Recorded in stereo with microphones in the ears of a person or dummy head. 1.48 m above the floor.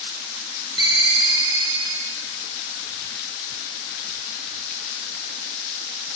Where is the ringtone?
25° right (ahead or behind), 3 m.